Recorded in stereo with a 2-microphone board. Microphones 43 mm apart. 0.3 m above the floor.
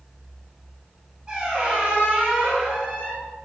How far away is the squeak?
About 0.9 m.